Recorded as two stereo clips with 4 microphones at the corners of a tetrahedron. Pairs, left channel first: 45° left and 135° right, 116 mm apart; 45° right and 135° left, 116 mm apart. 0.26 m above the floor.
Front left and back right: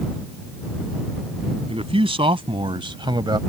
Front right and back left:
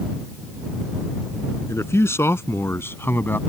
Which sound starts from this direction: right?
A man speaking, at 1.7 s.